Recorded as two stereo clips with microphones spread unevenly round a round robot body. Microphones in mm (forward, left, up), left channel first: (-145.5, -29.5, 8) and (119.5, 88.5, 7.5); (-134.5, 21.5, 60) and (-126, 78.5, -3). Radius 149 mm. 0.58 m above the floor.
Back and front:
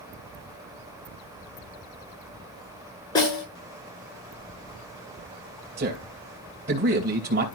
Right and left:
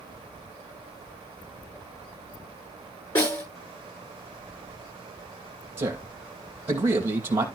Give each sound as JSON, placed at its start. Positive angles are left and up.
{"t": 3.1, "sound": "a snare drum", "azimuth_deg": -80, "distance_m": 7.0}
{"t": 5.8, "sound": "a man speaking", "azimuth_deg": 80, "distance_m": 3.5}